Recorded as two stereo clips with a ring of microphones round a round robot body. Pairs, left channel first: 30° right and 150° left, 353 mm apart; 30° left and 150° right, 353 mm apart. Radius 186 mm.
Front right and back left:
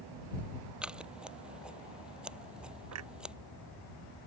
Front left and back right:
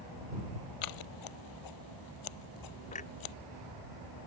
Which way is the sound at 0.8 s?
60° left.